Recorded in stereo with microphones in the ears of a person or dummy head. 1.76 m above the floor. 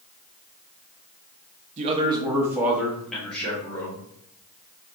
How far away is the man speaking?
About 0.6 m.